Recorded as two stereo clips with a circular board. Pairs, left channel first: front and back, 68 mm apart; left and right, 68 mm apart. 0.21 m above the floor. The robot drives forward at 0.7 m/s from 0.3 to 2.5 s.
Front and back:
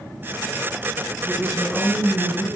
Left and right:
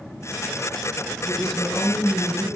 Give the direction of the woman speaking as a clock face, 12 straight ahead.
11 o'clock.